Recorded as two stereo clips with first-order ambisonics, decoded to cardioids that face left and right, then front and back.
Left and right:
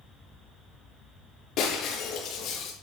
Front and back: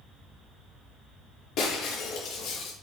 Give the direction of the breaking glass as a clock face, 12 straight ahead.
11 o'clock.